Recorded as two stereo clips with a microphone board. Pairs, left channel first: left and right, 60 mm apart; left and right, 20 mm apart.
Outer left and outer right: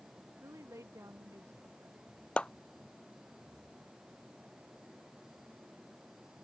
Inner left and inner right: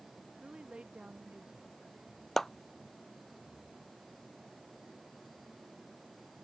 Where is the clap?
15° left (ahead or behind).